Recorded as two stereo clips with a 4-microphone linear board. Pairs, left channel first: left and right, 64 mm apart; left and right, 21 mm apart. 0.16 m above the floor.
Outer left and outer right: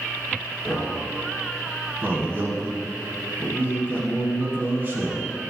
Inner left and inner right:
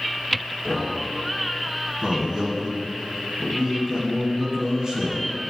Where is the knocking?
5° left (ahead or behind), 1.7 m.